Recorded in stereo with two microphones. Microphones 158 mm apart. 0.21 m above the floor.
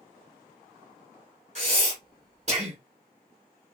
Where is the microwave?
I don't hear a microwave.